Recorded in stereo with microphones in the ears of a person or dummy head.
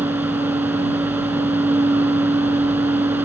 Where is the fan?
20° right (ahead or behind).